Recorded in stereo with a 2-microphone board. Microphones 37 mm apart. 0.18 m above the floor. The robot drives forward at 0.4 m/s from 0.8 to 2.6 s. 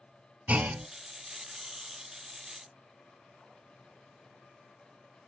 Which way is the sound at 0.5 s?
40° right (ahead or behind).